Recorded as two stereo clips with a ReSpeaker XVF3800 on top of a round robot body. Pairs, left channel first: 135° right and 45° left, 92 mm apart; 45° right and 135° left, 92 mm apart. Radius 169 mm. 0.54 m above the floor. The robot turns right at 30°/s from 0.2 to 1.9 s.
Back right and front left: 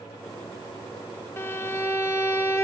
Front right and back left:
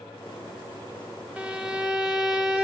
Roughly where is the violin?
Behind.